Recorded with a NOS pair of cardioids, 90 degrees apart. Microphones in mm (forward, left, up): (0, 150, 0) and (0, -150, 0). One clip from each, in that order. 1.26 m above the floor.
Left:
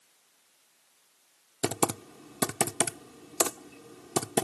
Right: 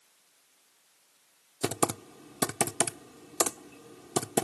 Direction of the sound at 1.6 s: 5° left.